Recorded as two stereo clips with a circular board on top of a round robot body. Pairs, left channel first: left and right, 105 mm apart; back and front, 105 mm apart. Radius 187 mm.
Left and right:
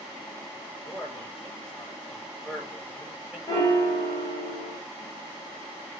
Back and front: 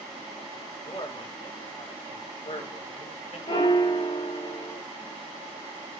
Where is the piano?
150° left, 3.5 m.